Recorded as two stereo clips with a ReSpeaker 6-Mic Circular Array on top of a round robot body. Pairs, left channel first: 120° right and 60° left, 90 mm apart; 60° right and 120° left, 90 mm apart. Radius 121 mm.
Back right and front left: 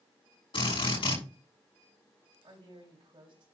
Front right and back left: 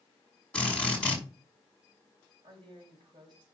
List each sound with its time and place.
0.5 s a drill: 140° right, 6 m
2.4 s a woman speaking: 90° left, 4 m